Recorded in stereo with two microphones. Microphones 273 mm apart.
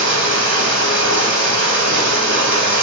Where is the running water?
45° right (ahead or behind), 3.5 m.